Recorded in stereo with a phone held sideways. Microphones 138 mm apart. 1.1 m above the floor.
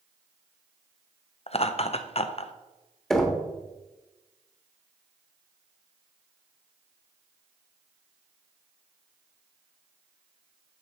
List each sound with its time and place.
1.5 s laughter: 45° left (ahead or behind), 0.6 m
3.1 s knocking: 5° left (ahead or behind), 1.0 m